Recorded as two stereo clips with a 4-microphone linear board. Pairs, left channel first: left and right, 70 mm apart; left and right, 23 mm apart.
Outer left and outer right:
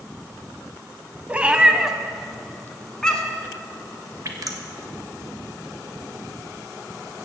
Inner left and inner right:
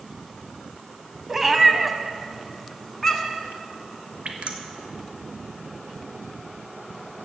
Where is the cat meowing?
20° right (ahead or behind), 0.9 m; by 3.5 s 15° left (ahead or behind), 1.6 m.